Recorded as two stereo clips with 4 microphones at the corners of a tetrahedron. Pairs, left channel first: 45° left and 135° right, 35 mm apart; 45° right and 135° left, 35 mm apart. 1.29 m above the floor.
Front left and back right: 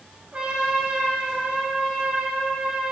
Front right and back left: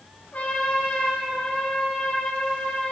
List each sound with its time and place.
0.3 s a trumpet: 90° right, 5.5 m